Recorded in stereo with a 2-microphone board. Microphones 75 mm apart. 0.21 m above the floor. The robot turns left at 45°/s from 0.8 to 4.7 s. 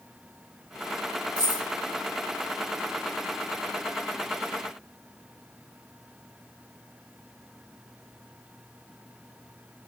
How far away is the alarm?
I don't hear an alarm.